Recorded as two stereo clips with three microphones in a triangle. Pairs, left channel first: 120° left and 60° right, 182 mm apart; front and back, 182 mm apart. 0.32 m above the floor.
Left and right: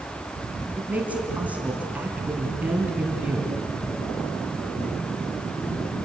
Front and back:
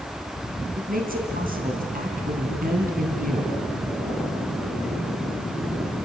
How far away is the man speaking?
About 3 m.